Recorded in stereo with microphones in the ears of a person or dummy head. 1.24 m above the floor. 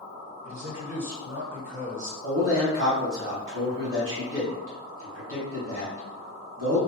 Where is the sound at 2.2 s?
70° right (ahead or behind), 1.6 m.